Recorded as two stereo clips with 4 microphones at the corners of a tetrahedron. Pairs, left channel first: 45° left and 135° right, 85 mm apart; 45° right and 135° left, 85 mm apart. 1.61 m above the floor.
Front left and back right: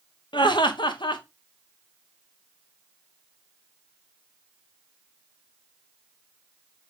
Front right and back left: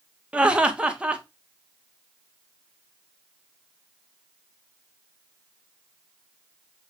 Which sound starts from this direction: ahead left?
Laughter, at 0.3 s.